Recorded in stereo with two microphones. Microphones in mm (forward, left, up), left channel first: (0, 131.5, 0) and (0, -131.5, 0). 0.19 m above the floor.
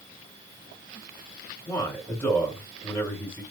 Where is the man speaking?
15° left (ahead or behind), 2.5 m.